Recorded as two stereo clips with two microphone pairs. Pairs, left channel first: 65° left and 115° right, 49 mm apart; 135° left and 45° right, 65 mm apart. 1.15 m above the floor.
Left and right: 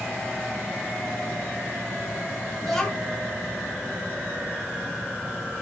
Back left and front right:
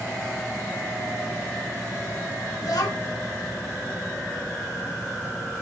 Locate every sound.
2.6 s a child speaking: 155° left, 1.5 m